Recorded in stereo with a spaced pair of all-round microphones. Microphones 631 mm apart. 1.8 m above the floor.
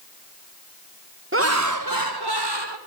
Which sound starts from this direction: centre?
Laughter, at 1.3 s.